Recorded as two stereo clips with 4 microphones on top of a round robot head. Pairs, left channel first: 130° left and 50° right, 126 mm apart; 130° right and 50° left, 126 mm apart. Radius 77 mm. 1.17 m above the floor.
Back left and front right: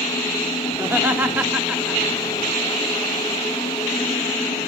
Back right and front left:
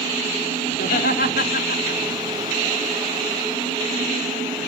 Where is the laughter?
125° right, 3 m; by 2.0 s 135° right, 2 m.